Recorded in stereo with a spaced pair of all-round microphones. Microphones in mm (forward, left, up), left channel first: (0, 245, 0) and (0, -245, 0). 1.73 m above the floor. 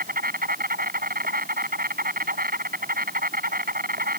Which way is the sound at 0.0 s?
20° right (ahead or behind).